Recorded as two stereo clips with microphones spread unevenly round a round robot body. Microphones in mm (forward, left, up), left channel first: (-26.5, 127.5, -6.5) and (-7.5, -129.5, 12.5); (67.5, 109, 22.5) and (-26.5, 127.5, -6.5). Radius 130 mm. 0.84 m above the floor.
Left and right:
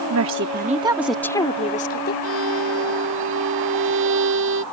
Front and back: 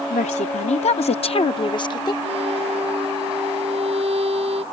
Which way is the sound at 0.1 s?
50° right.